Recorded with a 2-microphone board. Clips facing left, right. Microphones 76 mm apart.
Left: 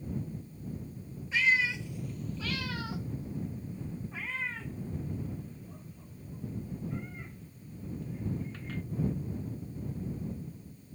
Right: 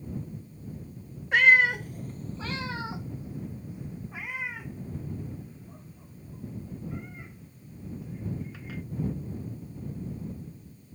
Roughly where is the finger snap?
No finger snap in this recording.